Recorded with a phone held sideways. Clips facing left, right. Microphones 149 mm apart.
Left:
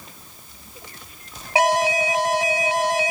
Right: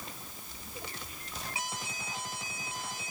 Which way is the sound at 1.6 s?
85° left.